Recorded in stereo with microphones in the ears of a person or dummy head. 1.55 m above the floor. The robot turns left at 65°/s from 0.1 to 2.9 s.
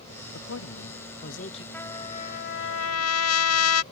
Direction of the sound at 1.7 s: 170° left.